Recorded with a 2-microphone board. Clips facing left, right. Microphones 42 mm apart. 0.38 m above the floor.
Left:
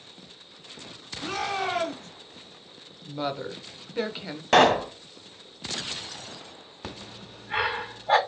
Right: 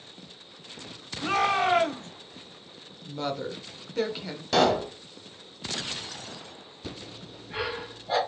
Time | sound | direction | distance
1.2 | a shout | 40° right (ahead or behind) | 1.6 m
3.0 | a woman speaking | 10° left (ahead or behind) | 0.8 m
4.5 | a pop | 50° left (ahead or behind) | 0.9 m
6.8 | breathing | 55° left (ahead or behind) | 1.6 m